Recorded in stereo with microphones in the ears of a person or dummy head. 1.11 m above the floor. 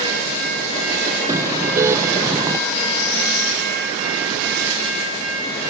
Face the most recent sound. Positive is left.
turn(degrees=-10)  # may be behind; listen again after turning